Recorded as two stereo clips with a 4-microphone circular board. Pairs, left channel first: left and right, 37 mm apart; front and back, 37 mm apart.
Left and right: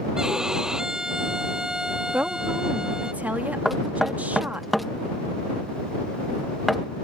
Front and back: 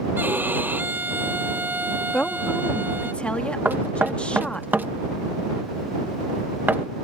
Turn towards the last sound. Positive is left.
turn(degrees=180)